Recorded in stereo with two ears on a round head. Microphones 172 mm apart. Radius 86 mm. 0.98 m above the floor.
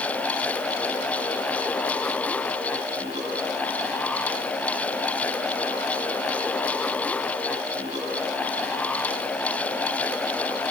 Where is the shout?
I don't hear a shout.